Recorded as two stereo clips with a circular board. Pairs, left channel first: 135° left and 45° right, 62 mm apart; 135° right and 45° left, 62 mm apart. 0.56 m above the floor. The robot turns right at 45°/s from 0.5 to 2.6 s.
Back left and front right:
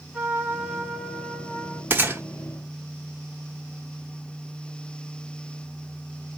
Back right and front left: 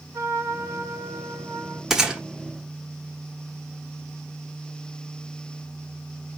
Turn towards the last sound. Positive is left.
turn(degrees=-5)